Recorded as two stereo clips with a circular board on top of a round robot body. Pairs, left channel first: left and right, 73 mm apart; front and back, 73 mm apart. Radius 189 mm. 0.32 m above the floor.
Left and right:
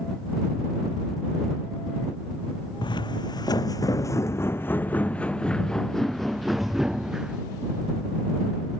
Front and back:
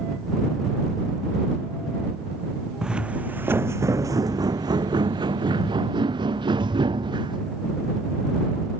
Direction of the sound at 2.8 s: 100° left.